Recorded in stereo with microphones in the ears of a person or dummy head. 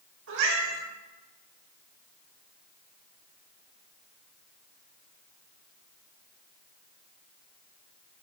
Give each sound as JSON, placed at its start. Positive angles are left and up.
{"t": 0.3, "sound": "a cat meowing", "side_deg": -75, "distance_m": 2.5}